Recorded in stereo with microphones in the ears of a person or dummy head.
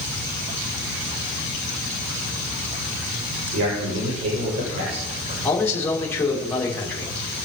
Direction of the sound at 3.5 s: 85° right.